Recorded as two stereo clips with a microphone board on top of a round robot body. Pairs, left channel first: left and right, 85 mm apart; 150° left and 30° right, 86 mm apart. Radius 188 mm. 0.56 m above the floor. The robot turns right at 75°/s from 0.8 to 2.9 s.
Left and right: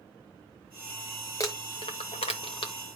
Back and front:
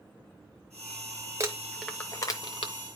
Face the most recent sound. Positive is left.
turn(degrees=145)